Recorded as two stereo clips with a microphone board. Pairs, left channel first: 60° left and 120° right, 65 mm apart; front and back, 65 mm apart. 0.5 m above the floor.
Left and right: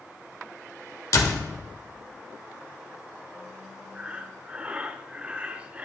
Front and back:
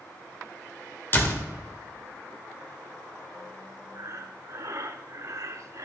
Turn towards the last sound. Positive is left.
turn(degrees=170)